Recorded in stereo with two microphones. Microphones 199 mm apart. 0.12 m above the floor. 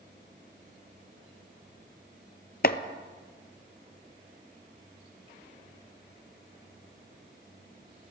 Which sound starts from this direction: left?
Chopping, at 2.6 s.